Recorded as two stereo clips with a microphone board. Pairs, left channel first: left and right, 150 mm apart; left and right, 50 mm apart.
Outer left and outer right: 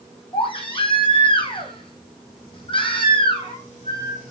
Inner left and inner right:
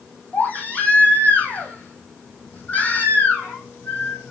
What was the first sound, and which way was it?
A baby crying, 35° left (ahead or behind).